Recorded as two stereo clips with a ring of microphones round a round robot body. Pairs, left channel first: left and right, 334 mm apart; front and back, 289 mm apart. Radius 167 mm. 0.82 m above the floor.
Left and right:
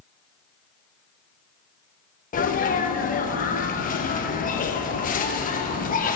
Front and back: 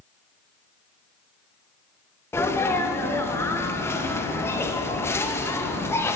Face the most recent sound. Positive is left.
turn(degrees=70)